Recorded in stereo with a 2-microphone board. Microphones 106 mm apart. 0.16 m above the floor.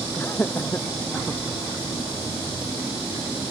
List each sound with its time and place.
0.2 s laughter: 20° left (ahead or behind)